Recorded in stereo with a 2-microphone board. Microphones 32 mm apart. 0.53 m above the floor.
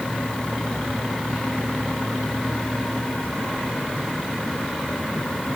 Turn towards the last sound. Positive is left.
No sound to turn to.